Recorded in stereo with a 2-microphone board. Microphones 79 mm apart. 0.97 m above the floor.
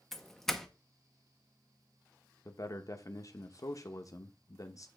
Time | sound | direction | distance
0.1 | a doorbell | 5° left (ahead or behind) | 0.7 m
2.5 | a man speaking | 45° left (ahead or behind) | 0.8 m